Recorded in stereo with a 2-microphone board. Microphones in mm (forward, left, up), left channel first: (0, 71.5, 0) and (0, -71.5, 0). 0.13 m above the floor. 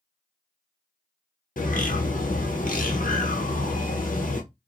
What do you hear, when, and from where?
1.6 s a bird: 70° left (ahead or behind), 0.9 m